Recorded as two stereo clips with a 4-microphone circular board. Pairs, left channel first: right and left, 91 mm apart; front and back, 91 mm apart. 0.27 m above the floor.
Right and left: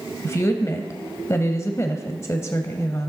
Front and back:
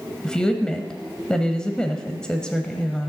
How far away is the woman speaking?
About 1.0 m.